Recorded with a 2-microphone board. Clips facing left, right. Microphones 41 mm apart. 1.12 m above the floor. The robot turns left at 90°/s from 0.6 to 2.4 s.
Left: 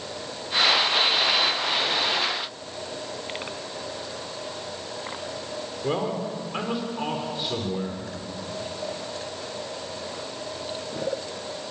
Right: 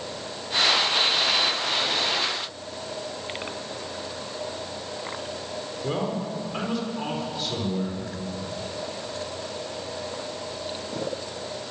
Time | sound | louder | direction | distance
5.8 | a man speaking | left 2 dB | 20° left (ahead or behind) | 4 m